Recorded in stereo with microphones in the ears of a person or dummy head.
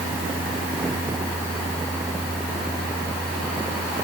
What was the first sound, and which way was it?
Only background noise.